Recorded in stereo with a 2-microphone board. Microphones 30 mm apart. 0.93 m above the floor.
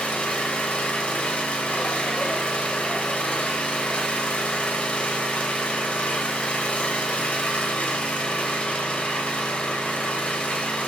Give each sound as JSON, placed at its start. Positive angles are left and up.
{"t": 0.0, "sound": "an engine running", "side_deg": 50, "distance_m": 0.9}